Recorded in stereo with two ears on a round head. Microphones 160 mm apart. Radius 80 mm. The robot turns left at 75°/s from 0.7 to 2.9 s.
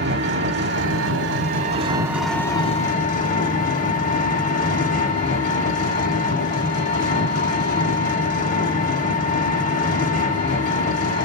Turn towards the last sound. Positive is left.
turn(degrees=130)